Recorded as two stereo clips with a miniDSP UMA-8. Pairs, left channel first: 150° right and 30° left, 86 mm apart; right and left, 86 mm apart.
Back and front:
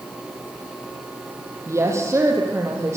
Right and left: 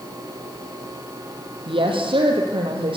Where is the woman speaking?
85° left, 5 m.